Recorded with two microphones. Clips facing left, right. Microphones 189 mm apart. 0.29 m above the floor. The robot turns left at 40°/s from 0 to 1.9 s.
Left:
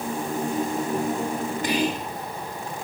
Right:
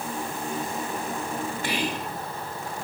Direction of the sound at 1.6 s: 15° left (ahead or behind).